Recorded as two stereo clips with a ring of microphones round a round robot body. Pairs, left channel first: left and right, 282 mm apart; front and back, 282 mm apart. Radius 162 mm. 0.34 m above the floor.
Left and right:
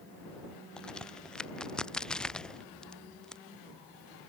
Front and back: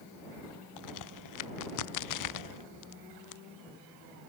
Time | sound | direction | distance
0.8 | a crack | 5° left | ?